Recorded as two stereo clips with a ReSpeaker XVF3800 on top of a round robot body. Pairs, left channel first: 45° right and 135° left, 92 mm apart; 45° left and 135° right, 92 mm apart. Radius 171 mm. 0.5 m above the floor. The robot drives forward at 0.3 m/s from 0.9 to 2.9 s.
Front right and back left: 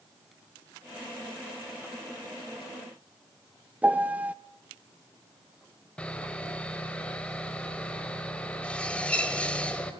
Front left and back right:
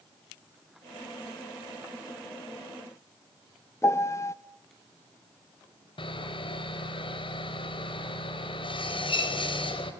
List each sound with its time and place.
3.8 s a piano: 75° left, 1.0 m
6.0 s sawing: 30° left, 3.5 m